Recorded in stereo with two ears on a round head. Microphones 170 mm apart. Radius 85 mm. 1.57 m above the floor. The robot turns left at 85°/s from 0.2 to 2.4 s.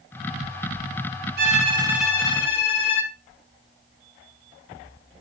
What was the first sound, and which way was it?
A violin, 125° right.